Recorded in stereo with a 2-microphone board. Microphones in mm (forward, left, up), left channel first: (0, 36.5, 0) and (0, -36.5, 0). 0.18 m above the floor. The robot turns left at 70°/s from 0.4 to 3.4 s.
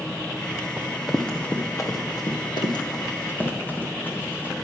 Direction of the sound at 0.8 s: 15° right (ahead or behind).